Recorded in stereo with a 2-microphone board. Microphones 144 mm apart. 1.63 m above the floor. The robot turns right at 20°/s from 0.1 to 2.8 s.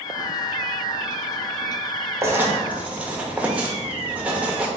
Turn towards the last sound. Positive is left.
turn(degrees=-10)  # may be behind; listen again after turning